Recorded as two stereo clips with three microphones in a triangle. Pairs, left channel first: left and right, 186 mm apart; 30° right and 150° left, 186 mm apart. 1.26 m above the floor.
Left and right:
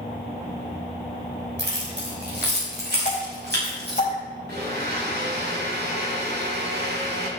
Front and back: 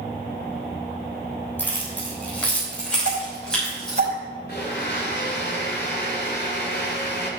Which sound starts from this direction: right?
Keys jangling, at 1.6 s.